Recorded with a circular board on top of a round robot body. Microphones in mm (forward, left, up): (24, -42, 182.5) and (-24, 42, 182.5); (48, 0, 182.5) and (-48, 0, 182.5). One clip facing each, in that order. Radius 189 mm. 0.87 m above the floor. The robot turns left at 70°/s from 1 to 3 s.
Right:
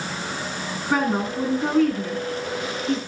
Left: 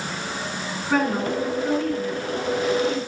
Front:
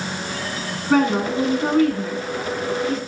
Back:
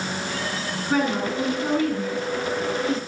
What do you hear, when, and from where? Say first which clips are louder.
0.9 s a woman speaking: left 1 dB, front 5 dB; 20° left, 9.5 m; by 3.0 s 120° right, 9.5 m